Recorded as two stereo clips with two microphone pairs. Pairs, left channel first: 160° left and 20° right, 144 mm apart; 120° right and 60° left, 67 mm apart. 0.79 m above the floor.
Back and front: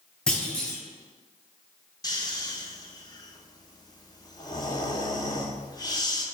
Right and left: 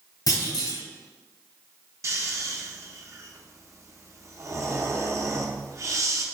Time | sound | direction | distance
0.3 | a clunk | 115° right | 1.4 m
2.0 | snoring | 95° left | 0.6 m